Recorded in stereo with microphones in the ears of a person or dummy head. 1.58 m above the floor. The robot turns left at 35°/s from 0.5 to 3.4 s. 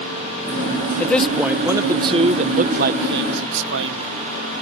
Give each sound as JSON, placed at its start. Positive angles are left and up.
{"t": 1.0, "sound": "a man speaking", "side_deg": 10}